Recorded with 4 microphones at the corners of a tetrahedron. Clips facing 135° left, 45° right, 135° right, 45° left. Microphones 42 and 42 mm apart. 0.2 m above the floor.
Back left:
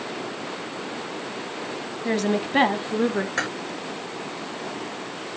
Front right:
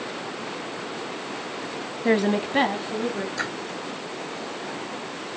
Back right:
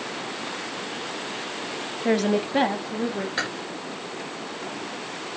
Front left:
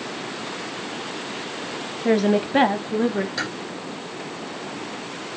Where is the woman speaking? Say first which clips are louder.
Front right 2 dB, front left 3 dB; 50° right, 1.0 m; by 3.3 s 95° left, 1.6 m.